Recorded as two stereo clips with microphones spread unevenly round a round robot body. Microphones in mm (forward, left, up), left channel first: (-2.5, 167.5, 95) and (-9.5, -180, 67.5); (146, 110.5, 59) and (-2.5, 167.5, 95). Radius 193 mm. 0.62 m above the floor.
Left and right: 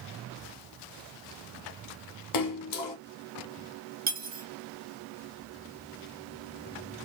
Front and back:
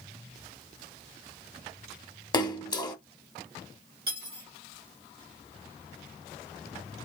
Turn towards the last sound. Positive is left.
turn(degrees=-155)